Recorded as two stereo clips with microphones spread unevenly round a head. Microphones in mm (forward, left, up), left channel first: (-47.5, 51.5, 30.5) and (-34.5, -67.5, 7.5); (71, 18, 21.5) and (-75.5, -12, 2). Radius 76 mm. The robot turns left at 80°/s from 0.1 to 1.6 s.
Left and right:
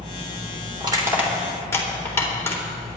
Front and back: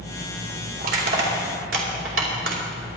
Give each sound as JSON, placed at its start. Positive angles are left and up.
{"t": 0.8, "sound": "crushing", "azimuth_deg": -130, "distance_m": 3.0}